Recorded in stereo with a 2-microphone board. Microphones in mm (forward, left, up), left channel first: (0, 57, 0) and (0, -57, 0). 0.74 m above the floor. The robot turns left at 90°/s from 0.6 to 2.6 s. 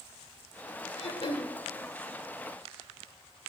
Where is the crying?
No crying in this recording.